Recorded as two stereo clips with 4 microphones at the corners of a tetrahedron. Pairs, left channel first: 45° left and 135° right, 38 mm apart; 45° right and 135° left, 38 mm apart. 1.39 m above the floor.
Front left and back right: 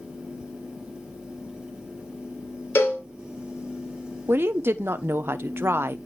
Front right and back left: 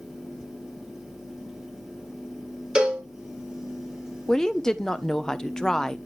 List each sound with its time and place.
2.8 s a cowbell: 65° left, 3 m
4.3 s a woman speaking: 125° right, 0.9 m